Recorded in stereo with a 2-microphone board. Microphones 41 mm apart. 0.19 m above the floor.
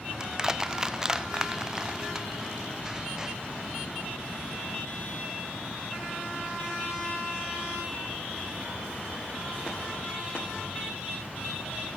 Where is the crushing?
20° right (ahead or behind).